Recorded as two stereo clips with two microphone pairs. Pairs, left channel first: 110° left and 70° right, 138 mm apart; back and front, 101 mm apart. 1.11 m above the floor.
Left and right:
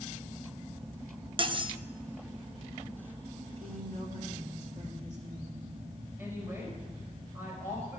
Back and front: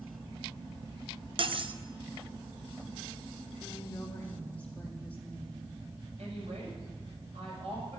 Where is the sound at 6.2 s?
Straight ahead, 6 m.